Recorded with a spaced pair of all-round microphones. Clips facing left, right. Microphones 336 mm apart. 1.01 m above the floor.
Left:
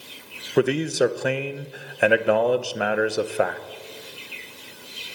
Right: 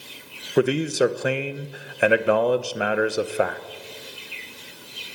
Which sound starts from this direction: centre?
A man speaking, at 0.6 s.